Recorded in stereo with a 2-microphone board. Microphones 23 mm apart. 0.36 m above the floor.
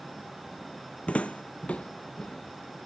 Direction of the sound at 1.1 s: 75° left (ahead or behind).